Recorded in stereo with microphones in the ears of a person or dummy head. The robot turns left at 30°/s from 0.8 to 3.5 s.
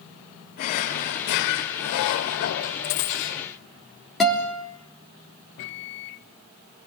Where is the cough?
No cough in this recording.